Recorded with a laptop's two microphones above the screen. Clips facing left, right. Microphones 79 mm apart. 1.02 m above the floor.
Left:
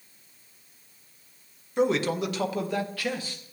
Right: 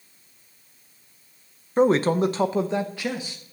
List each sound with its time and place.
1.8 s a man speaking: 40° right (ahead or behind), 0.7 m; by 3.4 s 15° right (ahead or behind), 1.4 m